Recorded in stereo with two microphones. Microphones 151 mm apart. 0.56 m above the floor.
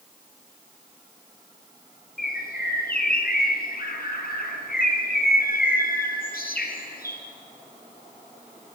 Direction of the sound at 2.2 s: 80° left.